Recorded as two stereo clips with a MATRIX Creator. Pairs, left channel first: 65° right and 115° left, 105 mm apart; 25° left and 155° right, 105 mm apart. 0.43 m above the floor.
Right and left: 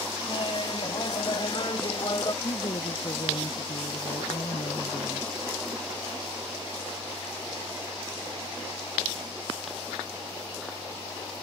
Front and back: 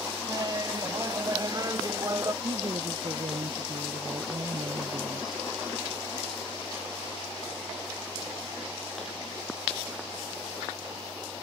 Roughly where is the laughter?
Right.